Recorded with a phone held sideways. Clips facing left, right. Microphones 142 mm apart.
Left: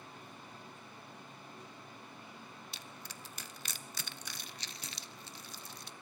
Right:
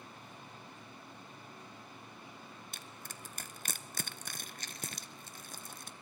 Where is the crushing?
50° right (ahead or behind), 0.6 m.